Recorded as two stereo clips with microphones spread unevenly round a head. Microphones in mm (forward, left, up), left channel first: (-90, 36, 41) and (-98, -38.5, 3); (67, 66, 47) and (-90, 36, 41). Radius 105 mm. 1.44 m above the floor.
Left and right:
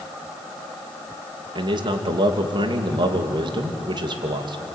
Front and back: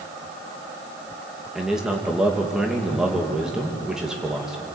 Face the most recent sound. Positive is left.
turn(degrees=-85)